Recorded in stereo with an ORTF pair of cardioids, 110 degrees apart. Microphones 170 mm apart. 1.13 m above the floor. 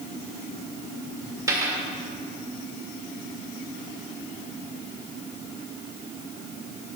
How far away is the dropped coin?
About 1.9 m.